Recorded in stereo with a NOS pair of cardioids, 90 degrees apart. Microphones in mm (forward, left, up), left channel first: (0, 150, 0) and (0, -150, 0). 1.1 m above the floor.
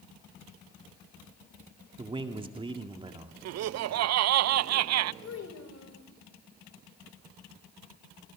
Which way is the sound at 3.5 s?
60° right.